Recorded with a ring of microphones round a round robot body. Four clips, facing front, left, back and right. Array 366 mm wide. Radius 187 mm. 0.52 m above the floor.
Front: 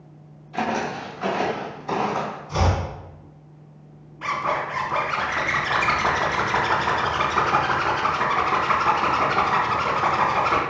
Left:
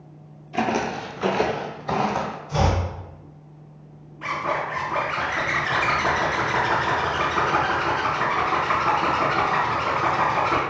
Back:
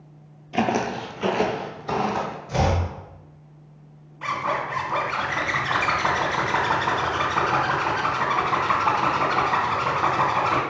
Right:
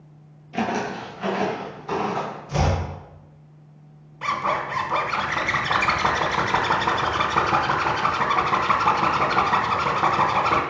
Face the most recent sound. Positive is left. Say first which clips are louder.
# right 2 dB, front 1 dB
turn(degrees=-90)